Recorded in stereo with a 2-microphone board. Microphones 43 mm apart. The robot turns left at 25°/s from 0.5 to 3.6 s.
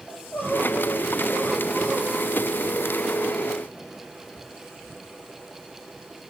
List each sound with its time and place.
0.1 s crying: 55° left, 3 m; by 3.4 s 15° right, 3 m